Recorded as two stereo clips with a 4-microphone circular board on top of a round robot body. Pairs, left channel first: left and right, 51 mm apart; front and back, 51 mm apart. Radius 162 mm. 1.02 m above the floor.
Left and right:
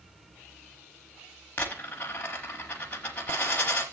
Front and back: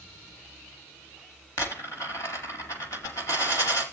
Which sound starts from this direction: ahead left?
A dropped coin, at 1.6 s.